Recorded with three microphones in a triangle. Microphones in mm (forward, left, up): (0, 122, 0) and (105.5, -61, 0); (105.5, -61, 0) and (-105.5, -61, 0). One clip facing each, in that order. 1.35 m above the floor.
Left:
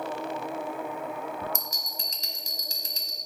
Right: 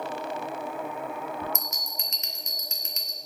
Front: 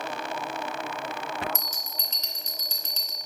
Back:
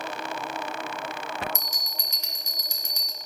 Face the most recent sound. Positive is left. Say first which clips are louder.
# right 1 dB, even
turn(degrees=115)